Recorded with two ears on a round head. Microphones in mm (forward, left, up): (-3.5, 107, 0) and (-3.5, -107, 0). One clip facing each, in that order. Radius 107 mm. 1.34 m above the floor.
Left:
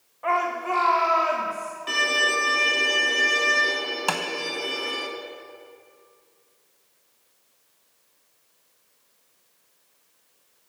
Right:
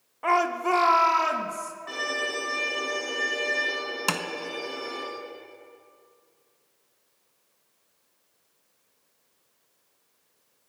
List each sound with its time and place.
0.2 s a shout: 60° right (ahead or behind), 1.1 m; by 1.7 s 65° right (ahead or behind), 2.5 m
1.9 s a violin: 50° left (ahead or behind), 3.5 m
4.1 s tapping: 25° right (ahead or behind), 0.7 m